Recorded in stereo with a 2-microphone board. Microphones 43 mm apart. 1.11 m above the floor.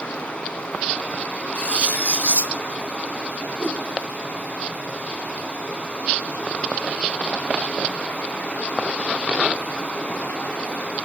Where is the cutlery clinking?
40° left (ahead or behind), 1.3 m.